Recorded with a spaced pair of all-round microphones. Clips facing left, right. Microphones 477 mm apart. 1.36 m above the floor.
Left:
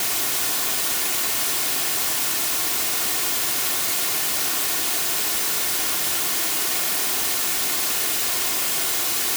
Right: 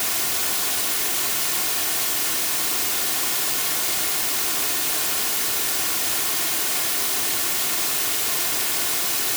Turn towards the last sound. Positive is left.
No sound to turn to.